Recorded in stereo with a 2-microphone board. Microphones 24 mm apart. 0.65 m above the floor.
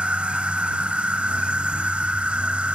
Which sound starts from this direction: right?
An insect, at 0.0 s.